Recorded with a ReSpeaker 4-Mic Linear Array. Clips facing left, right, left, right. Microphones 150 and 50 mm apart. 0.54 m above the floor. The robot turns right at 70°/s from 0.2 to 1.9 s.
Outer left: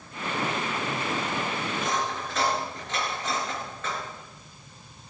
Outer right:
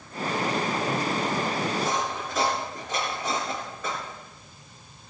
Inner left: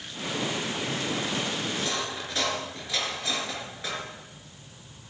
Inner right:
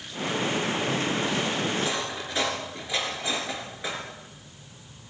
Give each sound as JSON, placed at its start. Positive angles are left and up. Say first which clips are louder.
{"t": 1.7, "sound": "cutlery clinking", "louder": "outer right 2 dB, inner right 2 dB", "side_deg": 0, "distance_m": 4.5}